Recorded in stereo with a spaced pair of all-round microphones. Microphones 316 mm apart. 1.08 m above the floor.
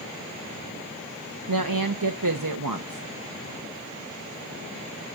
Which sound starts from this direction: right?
A woman speaking, at 1.5 s.